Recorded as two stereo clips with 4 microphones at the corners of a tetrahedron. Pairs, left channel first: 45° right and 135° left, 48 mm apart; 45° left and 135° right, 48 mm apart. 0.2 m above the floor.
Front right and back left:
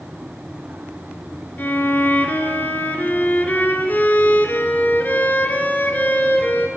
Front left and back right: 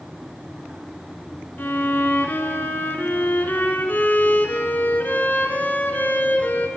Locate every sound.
1.6 s a violin: straight ahead, 2.5 m